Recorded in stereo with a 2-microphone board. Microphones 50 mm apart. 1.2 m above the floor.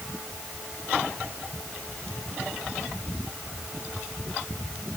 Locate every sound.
Only background noise.